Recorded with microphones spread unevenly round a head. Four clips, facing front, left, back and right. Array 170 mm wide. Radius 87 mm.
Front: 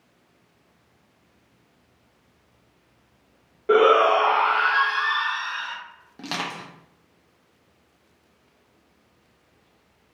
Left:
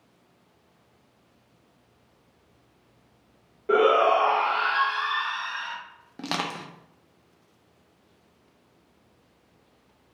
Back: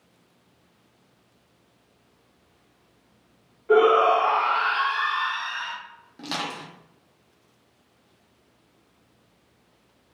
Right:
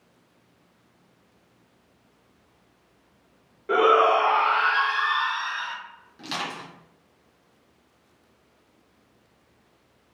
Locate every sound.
3.7 s a shout: straight ahead, 0.9 m; by 5.8 s 85° right, 1.0 m
6.2 s crushing: 80° left, 0.6 m